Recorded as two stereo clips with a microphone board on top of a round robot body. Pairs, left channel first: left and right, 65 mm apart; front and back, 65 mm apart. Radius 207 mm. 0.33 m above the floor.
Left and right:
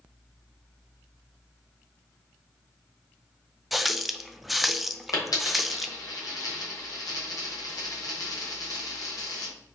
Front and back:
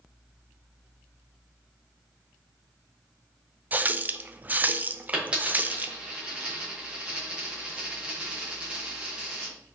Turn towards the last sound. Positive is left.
turn(degrees=110)